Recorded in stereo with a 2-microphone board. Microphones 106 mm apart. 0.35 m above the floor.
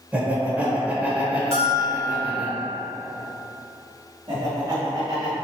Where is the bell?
30° right (ahead or behind), 1.3 m.